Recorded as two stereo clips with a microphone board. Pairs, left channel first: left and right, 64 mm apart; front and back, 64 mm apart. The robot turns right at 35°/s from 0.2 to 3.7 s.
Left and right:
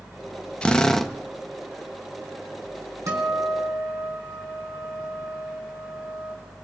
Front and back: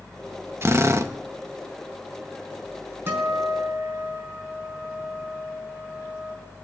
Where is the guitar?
125° right, 4 m; by 6.3 s 100° right, 4 m.